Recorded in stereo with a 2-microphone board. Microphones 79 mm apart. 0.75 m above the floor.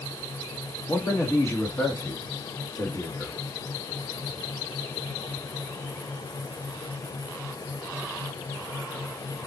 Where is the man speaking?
35° left (ahead or behind), 1.7 m.